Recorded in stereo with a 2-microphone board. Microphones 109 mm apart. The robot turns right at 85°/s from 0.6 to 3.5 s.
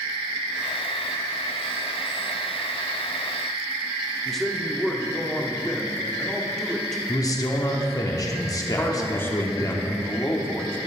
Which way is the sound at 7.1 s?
35° left (ahead or behind).